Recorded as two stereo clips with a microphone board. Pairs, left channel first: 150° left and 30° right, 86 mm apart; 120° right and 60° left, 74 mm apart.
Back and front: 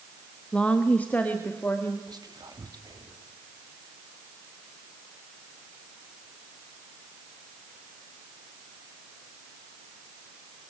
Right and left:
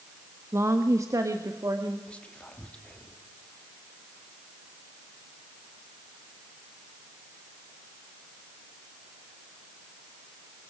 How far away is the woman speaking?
About 1.3 m.